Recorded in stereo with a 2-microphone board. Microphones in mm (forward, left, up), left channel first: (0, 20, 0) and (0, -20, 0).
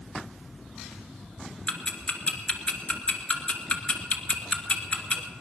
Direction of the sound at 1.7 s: 25° left (ahead or behind).